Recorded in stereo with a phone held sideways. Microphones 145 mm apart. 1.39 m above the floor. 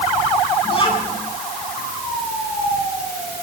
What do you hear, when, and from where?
0.7 s a child speaking: 40° left (ahead or behind), 9.5 m